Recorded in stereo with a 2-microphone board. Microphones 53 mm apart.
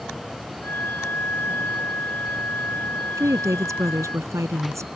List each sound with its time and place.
0.6 s a violin: 40° left (ahead or behind)
3.2 s a woman speaking: 70° right (ahead or behind)